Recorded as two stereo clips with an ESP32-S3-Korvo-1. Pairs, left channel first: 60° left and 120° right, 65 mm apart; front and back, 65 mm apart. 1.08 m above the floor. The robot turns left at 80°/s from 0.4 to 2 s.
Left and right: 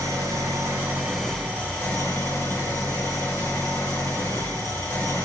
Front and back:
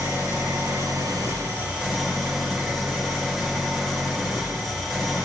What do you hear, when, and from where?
0.0 s an engine running: 145° right, 4 m; by 5.3 s 90° left, 4 m